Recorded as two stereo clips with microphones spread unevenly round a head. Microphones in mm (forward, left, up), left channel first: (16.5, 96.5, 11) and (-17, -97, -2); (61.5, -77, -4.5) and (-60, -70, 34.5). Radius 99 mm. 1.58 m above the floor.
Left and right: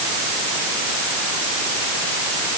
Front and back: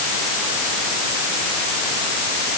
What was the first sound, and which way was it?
Only background noise.